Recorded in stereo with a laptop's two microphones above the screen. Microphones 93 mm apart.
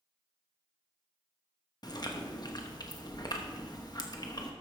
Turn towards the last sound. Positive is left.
turn(degrees=45)  # may be behind; listen again after turning